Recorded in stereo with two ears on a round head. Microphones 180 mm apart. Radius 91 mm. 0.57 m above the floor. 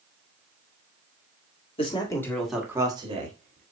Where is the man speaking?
30° left (ahead or behind), 1.6 m; by 3.6 s 45° right (ahead or behind), 1.8 m.